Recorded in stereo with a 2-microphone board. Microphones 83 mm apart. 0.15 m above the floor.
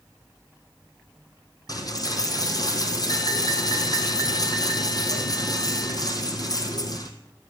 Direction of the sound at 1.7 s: 50° left (ahead or behind).